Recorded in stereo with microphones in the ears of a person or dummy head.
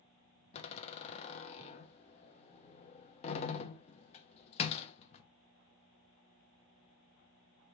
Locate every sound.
0.5 s a door slam: 35° left (ahead or behind), 0.7 m